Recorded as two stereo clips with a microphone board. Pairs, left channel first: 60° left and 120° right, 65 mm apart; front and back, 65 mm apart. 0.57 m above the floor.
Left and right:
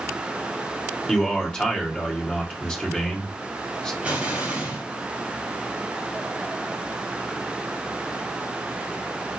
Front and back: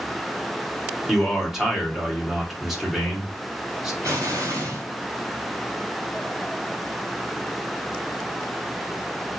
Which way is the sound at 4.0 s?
170° left.